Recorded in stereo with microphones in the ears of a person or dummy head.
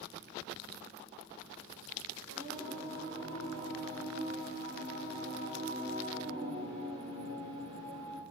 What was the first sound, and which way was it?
Singing, 25° right (ahead or behind).